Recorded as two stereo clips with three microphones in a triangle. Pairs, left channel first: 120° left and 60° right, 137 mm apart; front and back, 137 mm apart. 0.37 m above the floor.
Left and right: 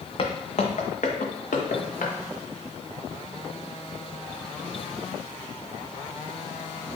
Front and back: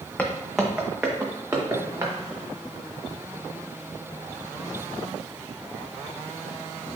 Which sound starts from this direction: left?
Footsteps, at 0.2 s.